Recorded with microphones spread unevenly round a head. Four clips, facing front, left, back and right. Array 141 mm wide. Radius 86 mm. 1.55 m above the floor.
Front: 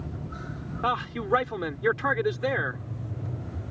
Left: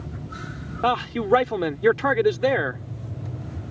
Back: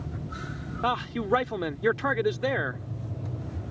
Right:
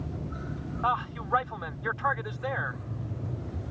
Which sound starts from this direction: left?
A man speaking, at 0.8 s.